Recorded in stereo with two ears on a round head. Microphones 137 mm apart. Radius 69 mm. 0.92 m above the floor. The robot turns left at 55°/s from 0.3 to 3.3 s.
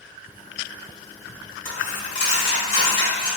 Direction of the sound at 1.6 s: 115° left.